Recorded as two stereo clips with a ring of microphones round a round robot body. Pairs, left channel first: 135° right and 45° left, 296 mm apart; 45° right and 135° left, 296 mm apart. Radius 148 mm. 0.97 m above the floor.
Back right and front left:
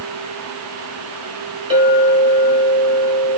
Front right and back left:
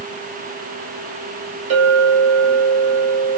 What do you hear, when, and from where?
1.7 s a clink: 120° left, 3.5 m